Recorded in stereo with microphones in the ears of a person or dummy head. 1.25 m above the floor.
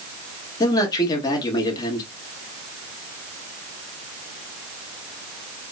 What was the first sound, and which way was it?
A man speaking, 25° left (ahead or behind).